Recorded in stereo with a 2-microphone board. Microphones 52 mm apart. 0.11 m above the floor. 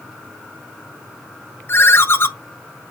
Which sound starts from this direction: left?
A ringtone, at 1.7 s.